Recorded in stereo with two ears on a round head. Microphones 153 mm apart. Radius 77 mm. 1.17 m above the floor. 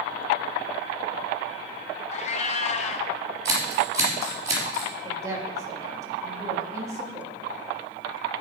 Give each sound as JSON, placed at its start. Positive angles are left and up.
{"t": 2.1, "sound": "a cat meowing", "side_deg": 40, "distance_m": 0.6}
{"t": 3.5, "sound": "scissors", "side_deg": -20, "distance_m": 3.5}
{"t": 5.0, "sound": "a woman speaking", "side_deg": -20, "distance_m": 1.6}